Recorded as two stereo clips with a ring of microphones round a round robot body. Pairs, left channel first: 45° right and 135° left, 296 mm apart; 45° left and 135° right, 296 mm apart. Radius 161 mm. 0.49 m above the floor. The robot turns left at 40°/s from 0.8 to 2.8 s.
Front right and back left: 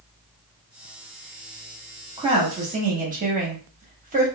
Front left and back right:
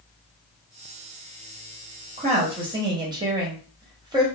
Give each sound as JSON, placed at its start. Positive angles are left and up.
{"t": 2.2, "sound": "a woman speaking", "azimuth_deg": -170, "distance_m": 0.9}